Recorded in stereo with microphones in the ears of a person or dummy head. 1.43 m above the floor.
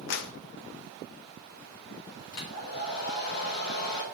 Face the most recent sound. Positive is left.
turn(degrees=80)